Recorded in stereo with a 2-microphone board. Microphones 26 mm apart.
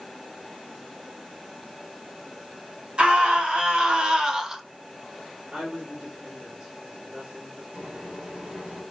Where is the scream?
50° right (ahead or behind), 1.7 m; by 4.6 s 15° right (ahead or behind), 0.6 m.